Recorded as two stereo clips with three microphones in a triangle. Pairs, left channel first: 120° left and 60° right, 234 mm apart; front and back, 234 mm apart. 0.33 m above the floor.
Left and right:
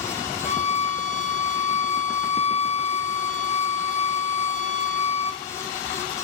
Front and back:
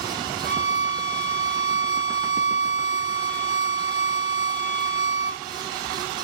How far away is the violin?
About 0.7 m.